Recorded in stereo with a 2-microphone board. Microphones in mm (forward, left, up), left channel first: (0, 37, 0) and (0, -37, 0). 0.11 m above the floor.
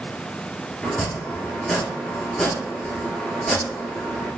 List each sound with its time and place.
0.8 s chopping: 5° left (ahead or behind), 0.7 m